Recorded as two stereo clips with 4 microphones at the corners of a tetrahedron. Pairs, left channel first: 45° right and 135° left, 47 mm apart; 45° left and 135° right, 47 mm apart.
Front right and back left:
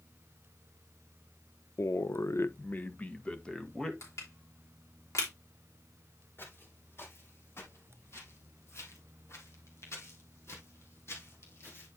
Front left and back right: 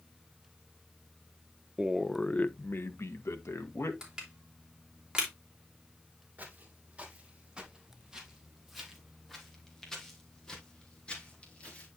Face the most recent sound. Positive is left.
turn(degrees=-15)